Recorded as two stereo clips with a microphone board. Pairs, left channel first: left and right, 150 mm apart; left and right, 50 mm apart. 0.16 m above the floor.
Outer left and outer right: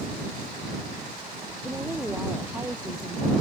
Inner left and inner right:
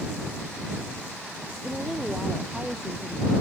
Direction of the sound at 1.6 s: 15° right (ahead or behind).